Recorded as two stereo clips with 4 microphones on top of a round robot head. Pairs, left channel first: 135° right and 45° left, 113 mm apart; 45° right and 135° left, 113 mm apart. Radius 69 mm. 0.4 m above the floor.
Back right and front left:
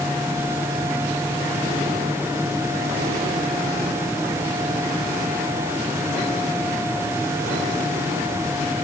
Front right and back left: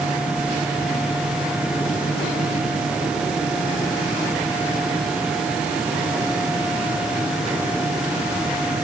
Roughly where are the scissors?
No scissors in this recording.